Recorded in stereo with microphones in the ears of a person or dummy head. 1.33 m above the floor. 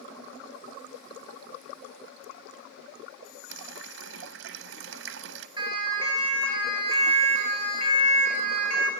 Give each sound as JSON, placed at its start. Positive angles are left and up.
{"t": 3.5, "sound": "a running tap", "side_deg": -70, "distance_m": 0.8}
{"t": 5.6, "sound": "a siren", "side_deg": -30, "distance_m": 9.0}